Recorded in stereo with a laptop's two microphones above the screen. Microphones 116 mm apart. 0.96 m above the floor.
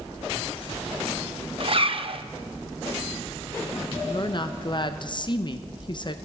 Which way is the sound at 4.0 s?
40° left (ahead or behind).